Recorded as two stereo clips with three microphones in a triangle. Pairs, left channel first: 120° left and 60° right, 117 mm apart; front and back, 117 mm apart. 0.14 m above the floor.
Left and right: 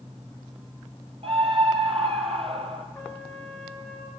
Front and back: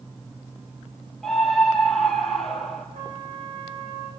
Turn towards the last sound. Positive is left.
turn(degrees=-160)